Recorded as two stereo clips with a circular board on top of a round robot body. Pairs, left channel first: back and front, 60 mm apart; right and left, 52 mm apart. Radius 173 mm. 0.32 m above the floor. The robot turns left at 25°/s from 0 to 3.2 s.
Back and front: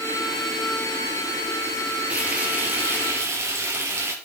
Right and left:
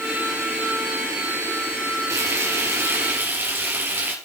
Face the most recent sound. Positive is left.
turn(degrees=40)